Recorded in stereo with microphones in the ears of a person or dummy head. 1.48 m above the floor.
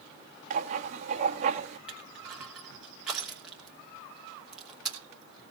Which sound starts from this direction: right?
Writing, at 0.5 s.